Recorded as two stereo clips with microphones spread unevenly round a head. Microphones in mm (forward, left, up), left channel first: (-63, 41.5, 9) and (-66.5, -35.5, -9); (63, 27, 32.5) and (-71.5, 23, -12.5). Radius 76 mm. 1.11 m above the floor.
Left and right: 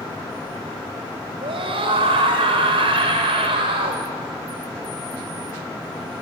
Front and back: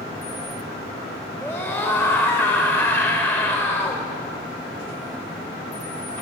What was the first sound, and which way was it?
A scream, 75° right.